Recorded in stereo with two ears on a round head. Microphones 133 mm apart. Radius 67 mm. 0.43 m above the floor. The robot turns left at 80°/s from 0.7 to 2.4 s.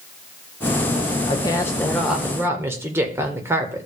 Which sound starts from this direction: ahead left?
A woman speaking, at 1.3 s.